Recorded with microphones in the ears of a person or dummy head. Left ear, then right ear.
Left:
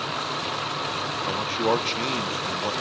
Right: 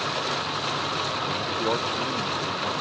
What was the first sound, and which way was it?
A man speaking, 70° left (ahead or behind).